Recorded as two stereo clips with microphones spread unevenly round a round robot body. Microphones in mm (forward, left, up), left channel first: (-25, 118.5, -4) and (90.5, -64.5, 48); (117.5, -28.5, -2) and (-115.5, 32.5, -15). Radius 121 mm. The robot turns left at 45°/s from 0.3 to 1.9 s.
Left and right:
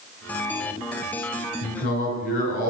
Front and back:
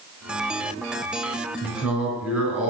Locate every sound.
1.6 s a man speaking: 95° left, 3 m; by 2.7 s 80° left, 3 m